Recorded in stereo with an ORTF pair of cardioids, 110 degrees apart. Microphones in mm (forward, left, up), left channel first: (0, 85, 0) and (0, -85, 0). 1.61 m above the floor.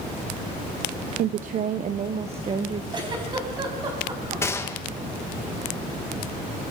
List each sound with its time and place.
1.2 s a woman speaking: 60° right, 0.7 m; by 2.8 s 35° right, 1.9 m
2.9 s a giggle: 30° right, 4.5 m
4.4 s a gunshot: 15° left, 2 m